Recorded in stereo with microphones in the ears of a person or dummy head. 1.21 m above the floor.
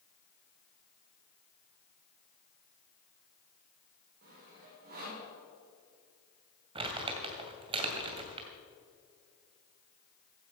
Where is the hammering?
No hammering in this recording.